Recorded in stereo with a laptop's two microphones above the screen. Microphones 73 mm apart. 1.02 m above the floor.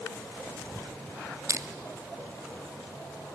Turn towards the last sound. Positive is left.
turn(degrees=-45)  # may be behind; listen again after turning